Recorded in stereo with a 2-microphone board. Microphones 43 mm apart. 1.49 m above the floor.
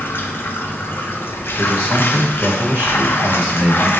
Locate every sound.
0.0 s running water: 60° left (ahead or behind), 0.9 m
1.6 s a man speaking: 55° right (ahead or behind), 1.7 m